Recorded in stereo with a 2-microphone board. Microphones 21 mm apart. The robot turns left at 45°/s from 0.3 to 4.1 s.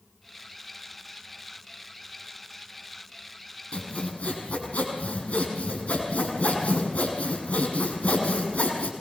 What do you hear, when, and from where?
3.7 s sawing: 60° left (ahead or behind), 8 m; by 8.9 s 80° left, 8 m